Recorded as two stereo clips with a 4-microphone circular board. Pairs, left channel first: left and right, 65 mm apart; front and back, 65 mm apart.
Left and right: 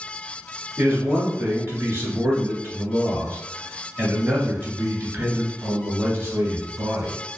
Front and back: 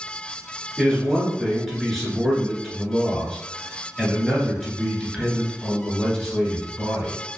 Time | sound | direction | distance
0.8 | a man speaking | 85° right | 1.2 m